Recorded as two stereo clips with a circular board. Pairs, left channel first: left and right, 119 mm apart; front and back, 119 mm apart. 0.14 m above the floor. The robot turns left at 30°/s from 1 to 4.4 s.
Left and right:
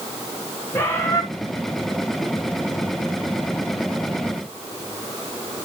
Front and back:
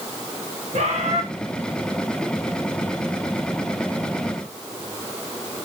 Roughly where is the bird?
Behind.